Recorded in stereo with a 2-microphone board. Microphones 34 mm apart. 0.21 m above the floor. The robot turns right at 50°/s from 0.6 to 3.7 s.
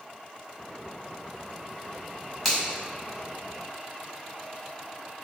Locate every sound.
2.5 s a finger snap: 10° left (ahead or behind), 1.3 m